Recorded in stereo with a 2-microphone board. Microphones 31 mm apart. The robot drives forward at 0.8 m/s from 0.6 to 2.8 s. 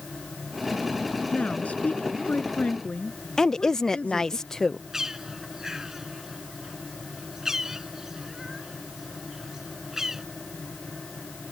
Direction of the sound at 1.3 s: 50° left (ahead or behind).